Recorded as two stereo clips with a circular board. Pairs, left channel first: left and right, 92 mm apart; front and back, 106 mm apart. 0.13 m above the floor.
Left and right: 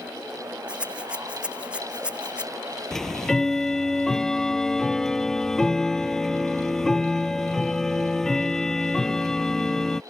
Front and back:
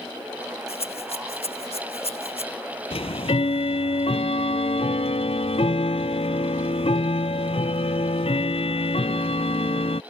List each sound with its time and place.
0.7 s a rattle: 15° right
2.9 s ticking: 5° left